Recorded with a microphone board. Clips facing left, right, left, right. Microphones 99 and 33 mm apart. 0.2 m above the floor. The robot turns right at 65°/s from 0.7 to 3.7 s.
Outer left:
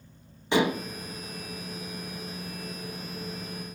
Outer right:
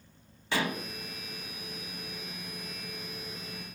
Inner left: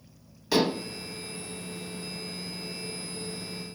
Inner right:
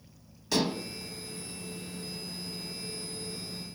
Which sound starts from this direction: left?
Dishes clattering, at 0.5 s.